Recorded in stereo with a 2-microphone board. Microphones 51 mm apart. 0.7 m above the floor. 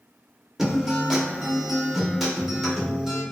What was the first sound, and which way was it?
A guitar, 5° right (ahead or behind).